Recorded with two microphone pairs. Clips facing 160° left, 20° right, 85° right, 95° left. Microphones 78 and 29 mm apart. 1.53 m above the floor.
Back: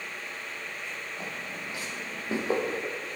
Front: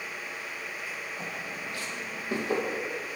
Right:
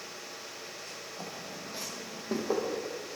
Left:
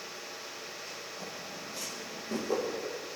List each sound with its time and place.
1.2 s footsteps: 125° right, 5 m; by 2.6 s 145° right, 3.5 m